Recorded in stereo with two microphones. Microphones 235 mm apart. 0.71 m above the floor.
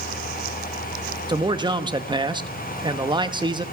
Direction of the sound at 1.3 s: 20° right (ahead or behind).